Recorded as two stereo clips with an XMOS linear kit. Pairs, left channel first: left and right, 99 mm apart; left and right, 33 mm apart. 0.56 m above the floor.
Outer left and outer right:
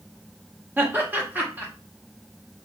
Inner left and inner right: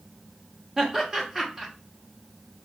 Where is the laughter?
20° right (ahead or behind), 1.2 m.